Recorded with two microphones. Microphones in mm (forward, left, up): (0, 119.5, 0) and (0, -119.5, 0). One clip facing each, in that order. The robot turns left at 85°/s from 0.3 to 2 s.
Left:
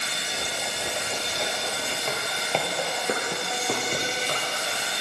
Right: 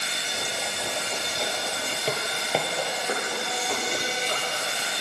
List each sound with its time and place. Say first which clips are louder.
0.0 s an insect: even; 140° right, 2.5 m; by 5.0 s 75° left, 2.5 m
2.1 s footsteps: right 3 dB; 35° right (ahead or behind), 1.4 m; by 4.4 s 65° left (ahead or behind), 3 m